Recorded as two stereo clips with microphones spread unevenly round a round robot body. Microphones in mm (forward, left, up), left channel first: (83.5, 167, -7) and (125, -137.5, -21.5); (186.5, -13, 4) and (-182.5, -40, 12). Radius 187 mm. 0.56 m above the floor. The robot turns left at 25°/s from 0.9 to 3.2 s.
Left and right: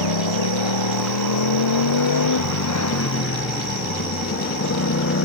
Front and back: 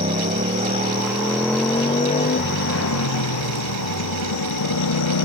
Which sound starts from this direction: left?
A motorcycle, at 0.0 s.